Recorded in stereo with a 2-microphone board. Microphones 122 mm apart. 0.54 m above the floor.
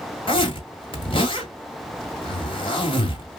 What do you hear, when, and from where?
0.3 s a zipper: 45° left (ahead or behind), 1.8 m